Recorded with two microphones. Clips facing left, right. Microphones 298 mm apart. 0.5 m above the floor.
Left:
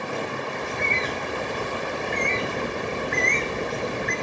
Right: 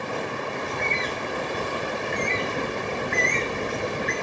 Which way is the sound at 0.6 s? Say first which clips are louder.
Even; centre (ahead or behind).